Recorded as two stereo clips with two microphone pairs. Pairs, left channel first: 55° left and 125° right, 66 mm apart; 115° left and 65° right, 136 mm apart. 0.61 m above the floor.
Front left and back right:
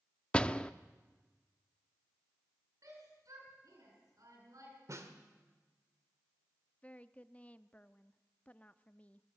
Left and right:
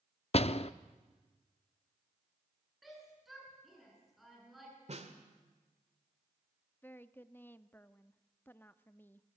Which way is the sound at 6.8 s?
70° left.